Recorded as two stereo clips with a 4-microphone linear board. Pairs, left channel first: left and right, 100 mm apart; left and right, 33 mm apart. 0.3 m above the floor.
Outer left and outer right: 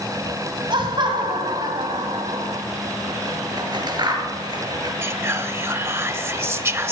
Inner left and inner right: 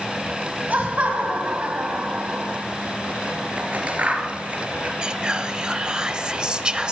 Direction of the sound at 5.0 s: 25° right (ahead or behind).